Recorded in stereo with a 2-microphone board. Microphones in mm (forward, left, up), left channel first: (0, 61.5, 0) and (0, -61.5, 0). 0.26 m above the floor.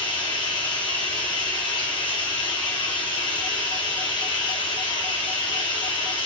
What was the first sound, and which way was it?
Running water, 45° left (ahead or behind).